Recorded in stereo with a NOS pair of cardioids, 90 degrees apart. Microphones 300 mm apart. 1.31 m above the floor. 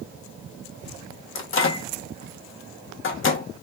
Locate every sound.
1.4 s a microwave: 45° left, 0.9 m